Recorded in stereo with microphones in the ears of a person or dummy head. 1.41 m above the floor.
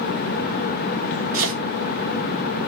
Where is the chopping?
45° right (ahead or behind), 1.3 m.